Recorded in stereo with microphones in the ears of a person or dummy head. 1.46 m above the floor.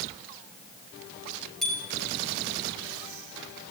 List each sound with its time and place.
1.6 s a bicycle bell: centre (ahead or behind), 5 m